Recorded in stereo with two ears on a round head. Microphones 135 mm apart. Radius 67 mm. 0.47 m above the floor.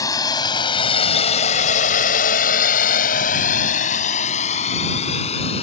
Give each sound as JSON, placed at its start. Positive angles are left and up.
{"t": 0.0, "sound": "a drone", "side_deg": 25}